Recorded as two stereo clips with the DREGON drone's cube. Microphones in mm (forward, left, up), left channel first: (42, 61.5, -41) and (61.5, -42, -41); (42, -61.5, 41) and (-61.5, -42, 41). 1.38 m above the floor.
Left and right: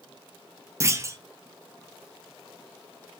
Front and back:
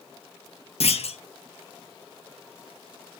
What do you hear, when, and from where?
0.8 s a clunk: 15° right, 0.5 m